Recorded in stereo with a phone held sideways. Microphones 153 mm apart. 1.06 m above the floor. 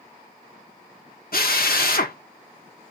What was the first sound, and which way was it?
A drill, 75° left (ahead or behind).